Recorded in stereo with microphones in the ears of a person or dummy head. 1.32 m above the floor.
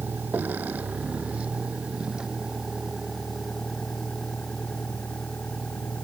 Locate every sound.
0.0 s a vehicle: 10° right (ahead or behind); by 6.0 s 5° left (ahead or behind)